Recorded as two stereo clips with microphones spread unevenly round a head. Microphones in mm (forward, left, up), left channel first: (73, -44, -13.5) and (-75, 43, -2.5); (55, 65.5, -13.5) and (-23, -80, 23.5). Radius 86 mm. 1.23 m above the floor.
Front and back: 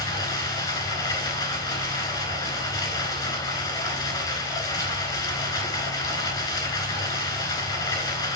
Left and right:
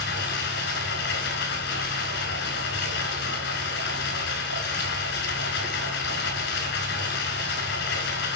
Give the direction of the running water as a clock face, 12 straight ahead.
11 o'clock.